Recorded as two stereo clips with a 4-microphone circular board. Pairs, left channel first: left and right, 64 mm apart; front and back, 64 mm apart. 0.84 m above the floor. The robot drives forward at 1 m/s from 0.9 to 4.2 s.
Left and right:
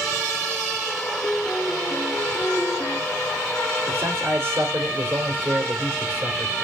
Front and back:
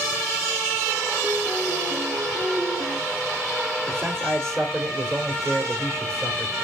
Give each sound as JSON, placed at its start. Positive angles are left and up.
{"t": 1.2, "sound": "a piano", "azimuth_deg": 165, "distance_m": 1.7}
{"t": 3.9, "sound": "a man speaking", "azimuth_deg": -135, "distance_m": 2.5}